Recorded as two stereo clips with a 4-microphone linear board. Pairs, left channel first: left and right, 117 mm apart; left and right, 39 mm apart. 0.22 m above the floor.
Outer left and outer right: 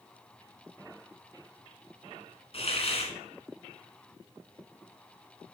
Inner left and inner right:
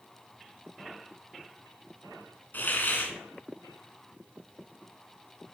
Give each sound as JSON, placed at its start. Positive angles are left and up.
{"t": 2.5, "sound": "a hiss", "side_deg": 55, "distance_m": 1.8}